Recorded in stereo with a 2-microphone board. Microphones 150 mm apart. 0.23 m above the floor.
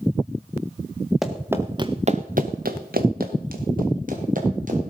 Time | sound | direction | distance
1.2 | running footsteps | centre (ahead or behind) | 1.7 m